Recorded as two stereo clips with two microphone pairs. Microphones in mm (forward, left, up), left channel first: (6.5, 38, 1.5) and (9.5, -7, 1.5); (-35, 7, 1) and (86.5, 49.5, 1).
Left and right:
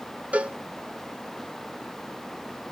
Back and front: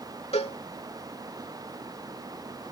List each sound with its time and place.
0.3 s a cowbell: 140° right